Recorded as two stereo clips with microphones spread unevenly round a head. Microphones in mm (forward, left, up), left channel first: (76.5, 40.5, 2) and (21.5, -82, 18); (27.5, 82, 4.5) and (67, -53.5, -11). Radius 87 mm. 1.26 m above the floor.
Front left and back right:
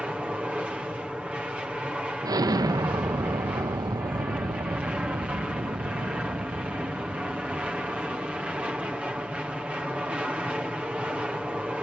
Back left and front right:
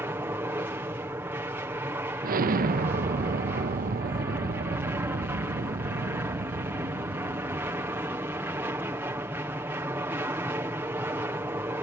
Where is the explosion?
55° right.